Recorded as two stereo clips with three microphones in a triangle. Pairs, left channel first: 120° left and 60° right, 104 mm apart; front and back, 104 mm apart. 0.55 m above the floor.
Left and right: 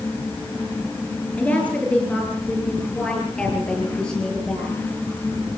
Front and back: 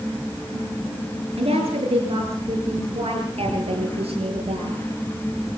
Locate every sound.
1.4 s a woman speaking: 165° right, 7.5 m; by 4.8 s 160° right, 9.5 m